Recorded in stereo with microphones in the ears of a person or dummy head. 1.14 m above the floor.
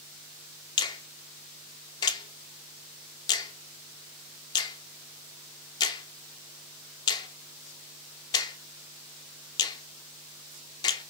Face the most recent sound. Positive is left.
turn(degrees=25)  # may be behind; listen again after turning